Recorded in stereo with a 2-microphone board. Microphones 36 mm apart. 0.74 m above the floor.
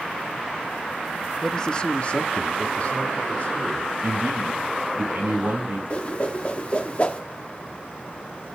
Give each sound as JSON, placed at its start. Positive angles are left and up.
{"t": 1.4, "sound": "a man speaking", "side_deg": 10, "distance_m": 0.6}
{"t": 4.0, "sound": "a man speaking", "side_deg": -75, "distance_m": 6.0}
{"t": 5.9, "sound": "a whoosh", "side_deg": 40, "distance_m": 1.0}